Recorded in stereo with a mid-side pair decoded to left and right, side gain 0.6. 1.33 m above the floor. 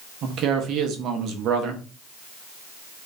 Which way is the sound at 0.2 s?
60° right.